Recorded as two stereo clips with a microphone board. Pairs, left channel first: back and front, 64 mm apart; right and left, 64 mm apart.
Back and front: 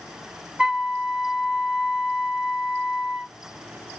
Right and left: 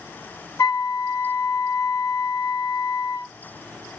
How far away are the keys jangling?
I don't hear keys jangling.